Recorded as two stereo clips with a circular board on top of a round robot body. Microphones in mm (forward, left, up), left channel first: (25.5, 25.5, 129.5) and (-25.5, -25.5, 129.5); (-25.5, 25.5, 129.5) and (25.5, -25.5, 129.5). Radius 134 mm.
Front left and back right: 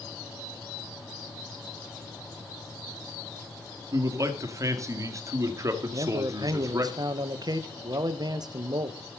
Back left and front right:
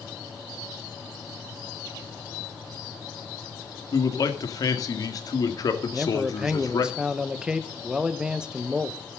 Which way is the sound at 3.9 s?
175° left.